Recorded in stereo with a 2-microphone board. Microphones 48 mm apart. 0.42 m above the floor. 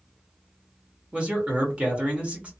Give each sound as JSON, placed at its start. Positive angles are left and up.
{"t": 1.1, "sound": "a man speaking", "side_deg": -25, "distance_m": 1.1}